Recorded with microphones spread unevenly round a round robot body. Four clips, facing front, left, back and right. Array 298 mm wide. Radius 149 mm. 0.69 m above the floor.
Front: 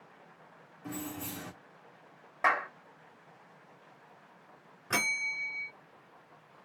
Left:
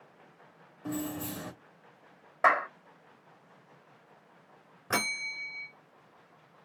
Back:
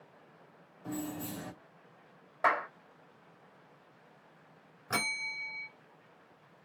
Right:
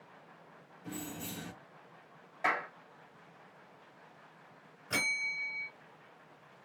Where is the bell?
85° left, 2.5 m.